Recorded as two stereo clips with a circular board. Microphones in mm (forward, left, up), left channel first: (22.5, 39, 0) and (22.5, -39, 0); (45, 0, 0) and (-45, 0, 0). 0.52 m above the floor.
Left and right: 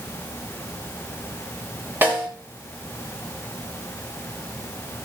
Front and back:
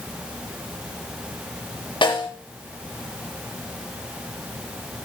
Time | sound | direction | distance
2.0 | a snare drum | 25° right | 5.5 m